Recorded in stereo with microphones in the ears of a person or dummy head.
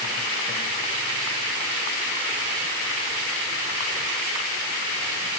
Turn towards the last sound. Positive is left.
No sound to turn to.